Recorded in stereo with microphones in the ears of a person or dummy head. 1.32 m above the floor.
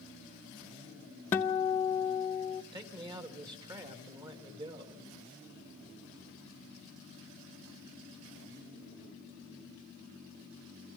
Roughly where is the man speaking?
Centre.